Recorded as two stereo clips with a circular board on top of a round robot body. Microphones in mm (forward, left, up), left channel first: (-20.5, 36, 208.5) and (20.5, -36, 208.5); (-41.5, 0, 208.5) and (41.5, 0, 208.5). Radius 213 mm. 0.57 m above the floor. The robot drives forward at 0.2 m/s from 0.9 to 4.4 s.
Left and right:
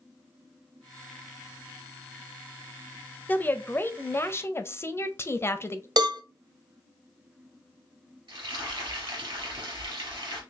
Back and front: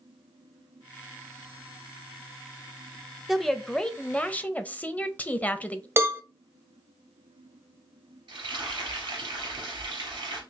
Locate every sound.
3.3 s a woman speaking: 90° left, 0.9 m; by 5.9 s 125° left, 0.9 m
6.0 s a cowbell: 55° right, 0.8 m
8.3 s frying: 35° right, 3 m